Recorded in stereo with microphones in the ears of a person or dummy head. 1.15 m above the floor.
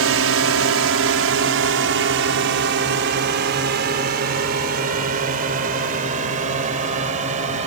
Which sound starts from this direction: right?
A drone, at 0.0 s.